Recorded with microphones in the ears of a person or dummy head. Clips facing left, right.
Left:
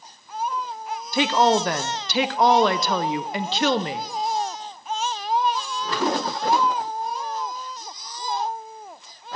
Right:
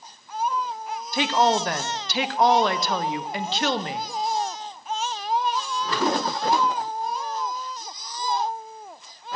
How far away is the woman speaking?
About 0.5 m.